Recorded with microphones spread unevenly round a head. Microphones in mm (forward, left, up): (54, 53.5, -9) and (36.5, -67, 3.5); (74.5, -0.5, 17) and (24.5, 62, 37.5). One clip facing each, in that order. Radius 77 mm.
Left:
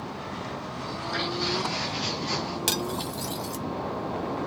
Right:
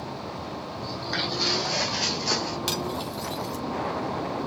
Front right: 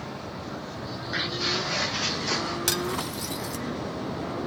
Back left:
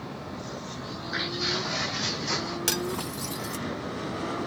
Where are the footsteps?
130° right, 4 m; by 2.6 s 120° right, 5 m.